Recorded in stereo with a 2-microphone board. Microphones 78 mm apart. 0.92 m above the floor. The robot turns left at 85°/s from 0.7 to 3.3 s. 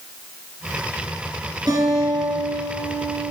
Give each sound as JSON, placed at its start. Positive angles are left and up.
{"t": 1.7, "sound": "a guitar", "azimuth_deg": -130, "distance_m": 6.5}